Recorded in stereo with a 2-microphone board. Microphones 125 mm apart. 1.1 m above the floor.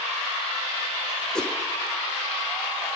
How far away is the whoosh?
About 0.9 m.